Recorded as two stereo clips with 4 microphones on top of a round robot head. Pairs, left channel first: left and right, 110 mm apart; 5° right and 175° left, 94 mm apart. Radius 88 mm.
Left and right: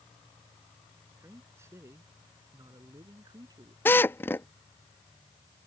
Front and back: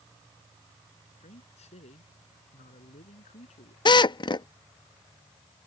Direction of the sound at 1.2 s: 15° right.